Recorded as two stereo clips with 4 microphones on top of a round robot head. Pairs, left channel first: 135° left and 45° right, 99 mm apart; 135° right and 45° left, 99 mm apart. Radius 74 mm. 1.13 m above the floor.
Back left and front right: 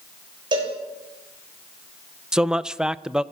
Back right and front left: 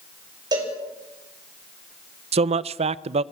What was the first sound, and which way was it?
A cowbell, 5° right.